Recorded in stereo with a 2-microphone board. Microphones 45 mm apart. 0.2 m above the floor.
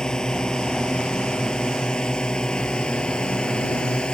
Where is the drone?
15° left (ahead or behind); by 4.1 s 20° left (ahead or behind).